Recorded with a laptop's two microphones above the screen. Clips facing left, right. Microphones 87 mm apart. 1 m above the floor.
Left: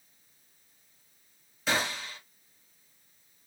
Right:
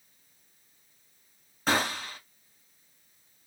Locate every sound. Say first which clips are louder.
1.7 s a gunshot: right 3 dB; 45° right (ahead or behind), 1.8 m